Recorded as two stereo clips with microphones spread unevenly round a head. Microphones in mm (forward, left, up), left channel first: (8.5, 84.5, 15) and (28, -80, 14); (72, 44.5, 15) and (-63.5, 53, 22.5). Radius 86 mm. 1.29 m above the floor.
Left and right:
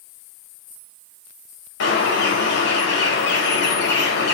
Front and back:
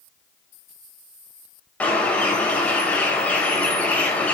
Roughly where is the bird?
Left.